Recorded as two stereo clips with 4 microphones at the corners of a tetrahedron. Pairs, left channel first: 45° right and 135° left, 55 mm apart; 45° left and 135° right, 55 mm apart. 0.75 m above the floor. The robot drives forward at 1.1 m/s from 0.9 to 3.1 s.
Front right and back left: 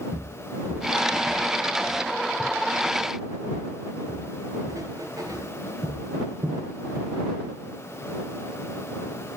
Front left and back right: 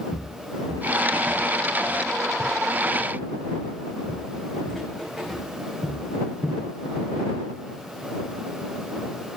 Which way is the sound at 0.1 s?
55° left.